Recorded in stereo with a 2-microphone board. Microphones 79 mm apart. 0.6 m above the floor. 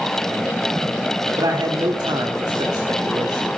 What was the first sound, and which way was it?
A man speaking, 60° right (ahead or behind).